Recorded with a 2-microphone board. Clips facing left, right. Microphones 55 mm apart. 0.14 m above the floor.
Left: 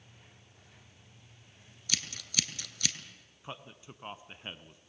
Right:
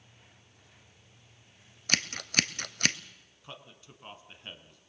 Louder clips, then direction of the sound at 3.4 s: Left 3 dB; 25° left (ahead or behind).